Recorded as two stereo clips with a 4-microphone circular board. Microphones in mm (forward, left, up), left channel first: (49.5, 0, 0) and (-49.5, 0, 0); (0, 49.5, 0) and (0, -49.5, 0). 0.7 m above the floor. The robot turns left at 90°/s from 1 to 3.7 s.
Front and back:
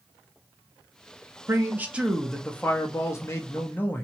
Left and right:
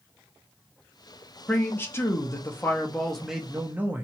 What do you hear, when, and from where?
1.5 s a man speaking: 155° left, 0.9 m; by 4.0 s 45° right, 0.9 m